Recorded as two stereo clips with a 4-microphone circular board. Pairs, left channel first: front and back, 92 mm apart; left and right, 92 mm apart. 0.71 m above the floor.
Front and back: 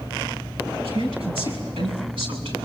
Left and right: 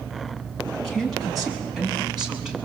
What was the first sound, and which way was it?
A woman speaking, 175° left.